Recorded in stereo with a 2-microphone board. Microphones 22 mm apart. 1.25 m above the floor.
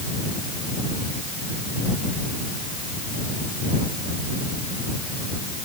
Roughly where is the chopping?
No chopping in this recording.